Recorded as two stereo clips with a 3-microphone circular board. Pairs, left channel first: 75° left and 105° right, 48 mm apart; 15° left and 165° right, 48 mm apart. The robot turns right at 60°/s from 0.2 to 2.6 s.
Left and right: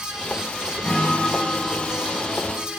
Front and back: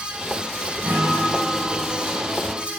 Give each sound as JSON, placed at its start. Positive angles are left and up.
{"t": 0.8, "sound": "a guitar", "azimuth_deg": 140, "distance_m": 5.5}